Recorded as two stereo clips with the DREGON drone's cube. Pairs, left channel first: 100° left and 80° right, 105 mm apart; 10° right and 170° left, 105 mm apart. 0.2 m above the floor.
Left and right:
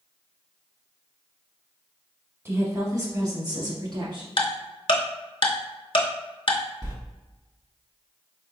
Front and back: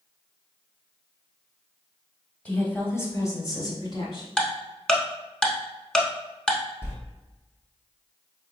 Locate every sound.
2.5 s a woman speaking: 70° right, 1.0 m; by 4.3 s 45° right, 1.7 m
4.4 s ticking: 70° left, 0.7 m
6.8 s a sliding door: 65° right, 0.9 m